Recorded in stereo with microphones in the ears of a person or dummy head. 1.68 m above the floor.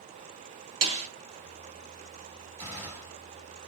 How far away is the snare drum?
About 0.9 m.